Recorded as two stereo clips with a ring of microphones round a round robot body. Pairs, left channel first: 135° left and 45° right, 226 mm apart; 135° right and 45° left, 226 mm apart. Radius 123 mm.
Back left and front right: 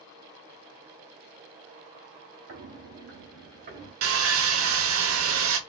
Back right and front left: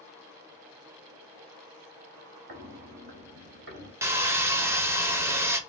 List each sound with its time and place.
2.5 s footsteps: 5° right, 2.5 m; by 3.9 s straight ahead, 3 m
4.0 s sawing: 35° right, 0.8 m